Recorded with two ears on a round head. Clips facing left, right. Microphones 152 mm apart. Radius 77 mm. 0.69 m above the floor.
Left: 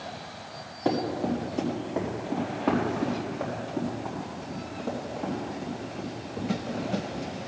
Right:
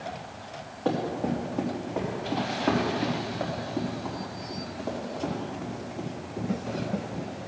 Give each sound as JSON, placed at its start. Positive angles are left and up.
{"t": 0.8, "sound": "running footsteps", "side_deg": 15, "distance_m": 3.0}